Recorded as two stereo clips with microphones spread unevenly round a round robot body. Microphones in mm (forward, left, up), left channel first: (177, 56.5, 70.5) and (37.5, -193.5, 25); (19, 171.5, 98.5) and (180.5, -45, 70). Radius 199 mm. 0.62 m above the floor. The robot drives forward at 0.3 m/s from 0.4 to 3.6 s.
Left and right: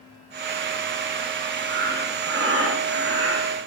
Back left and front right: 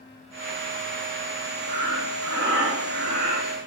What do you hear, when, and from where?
1.7 s breathing: 65° right, 2 m; by 3.6 s 80° right, 1.9 m